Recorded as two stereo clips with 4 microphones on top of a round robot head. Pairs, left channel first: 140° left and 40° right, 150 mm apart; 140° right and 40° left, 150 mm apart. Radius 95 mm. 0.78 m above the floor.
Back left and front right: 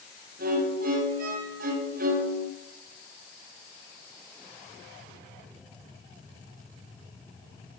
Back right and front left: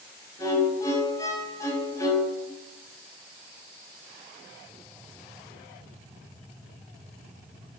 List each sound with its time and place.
0.4 s a violin: 70° right, 4.5 m